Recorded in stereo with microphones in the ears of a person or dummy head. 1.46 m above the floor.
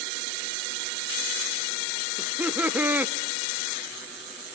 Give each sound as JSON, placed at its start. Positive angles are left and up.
{"t": 2.2, "sound": "laughter", "side_deg": -10, "distance_m": 0.7}